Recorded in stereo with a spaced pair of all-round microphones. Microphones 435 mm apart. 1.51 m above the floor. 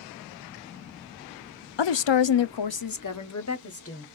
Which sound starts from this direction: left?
A woman speaking, at 1.8 s.